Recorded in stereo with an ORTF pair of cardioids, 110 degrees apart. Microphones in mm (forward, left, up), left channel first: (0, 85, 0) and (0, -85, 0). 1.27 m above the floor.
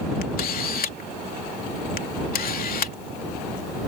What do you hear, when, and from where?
0.2 s a camera shutter: 55° left